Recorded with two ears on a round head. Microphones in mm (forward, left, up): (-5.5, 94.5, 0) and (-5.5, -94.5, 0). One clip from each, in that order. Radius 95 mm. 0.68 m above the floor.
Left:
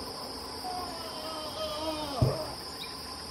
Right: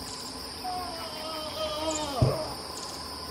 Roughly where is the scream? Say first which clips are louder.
Right 3 dB; centre.